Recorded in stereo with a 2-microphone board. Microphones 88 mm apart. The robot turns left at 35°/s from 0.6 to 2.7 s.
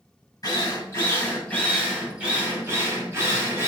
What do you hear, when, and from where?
0.4 s a drill: 45° left, 6.5 m; by 3.7 s 30° right, 6.5 m